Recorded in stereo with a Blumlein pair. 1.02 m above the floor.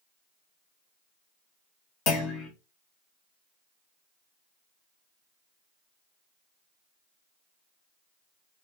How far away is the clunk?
About 1.0 m.